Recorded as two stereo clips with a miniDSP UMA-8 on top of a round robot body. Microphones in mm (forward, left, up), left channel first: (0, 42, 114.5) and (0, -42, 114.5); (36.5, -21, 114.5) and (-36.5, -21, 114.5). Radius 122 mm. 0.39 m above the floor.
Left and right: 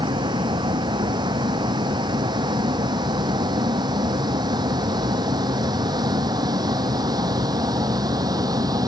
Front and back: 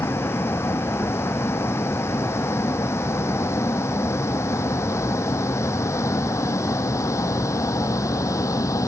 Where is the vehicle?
55° right; by 8.9 s 45° right.